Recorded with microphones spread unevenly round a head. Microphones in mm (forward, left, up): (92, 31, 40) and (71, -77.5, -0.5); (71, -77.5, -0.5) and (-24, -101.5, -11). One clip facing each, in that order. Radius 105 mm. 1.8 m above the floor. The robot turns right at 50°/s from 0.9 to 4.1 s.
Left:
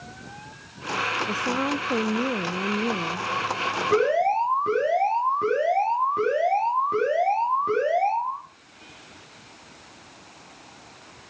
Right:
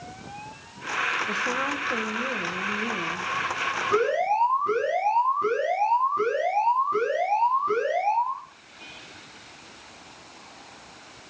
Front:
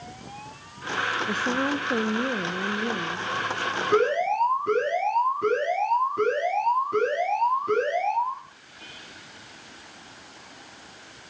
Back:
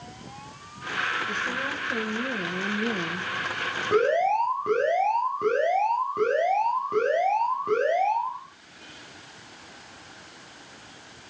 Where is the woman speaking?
20° left, 1.0 m; by 3.3 s 120° left, 1.0 m.